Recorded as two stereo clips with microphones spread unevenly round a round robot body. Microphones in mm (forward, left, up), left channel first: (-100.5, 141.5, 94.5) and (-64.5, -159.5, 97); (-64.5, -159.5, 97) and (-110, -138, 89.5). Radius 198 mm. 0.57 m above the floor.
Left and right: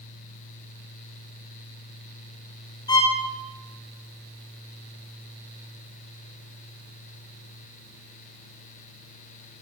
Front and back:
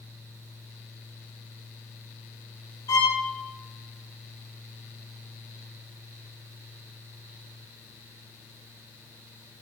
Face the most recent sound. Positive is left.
turn(degrees=20)